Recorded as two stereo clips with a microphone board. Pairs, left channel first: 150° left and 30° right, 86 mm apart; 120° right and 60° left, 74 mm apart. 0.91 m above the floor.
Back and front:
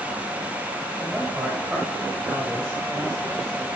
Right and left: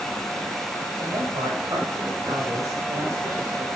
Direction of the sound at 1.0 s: 50° left.